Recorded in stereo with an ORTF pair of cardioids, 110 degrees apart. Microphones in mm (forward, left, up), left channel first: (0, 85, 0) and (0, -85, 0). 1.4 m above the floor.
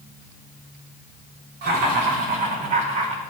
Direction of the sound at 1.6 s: 70° right.